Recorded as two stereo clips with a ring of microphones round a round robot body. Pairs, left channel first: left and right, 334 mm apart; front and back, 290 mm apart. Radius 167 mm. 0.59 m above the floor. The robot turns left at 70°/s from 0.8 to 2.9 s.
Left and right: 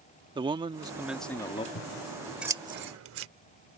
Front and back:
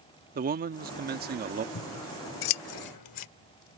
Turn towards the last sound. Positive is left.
turn(degrees=-35)